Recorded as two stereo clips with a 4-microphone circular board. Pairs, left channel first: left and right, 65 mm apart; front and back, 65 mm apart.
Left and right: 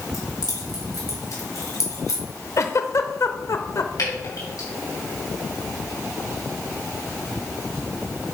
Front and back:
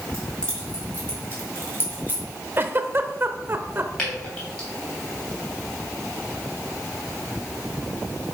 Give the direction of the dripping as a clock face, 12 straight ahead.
10 o'clock.